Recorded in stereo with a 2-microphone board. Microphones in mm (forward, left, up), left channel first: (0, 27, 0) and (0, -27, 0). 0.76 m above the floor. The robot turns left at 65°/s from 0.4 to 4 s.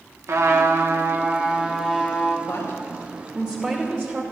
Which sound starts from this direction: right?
A trumpet, at 0.3 s.